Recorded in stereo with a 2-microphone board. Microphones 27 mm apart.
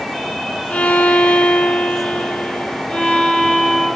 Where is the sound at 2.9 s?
55° left (ahead or behind), 3.5 m.